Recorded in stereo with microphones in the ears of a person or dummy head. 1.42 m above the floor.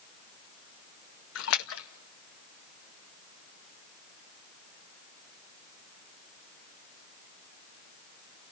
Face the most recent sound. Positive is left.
turn(degrees=75)  # may be behind; listen again after turning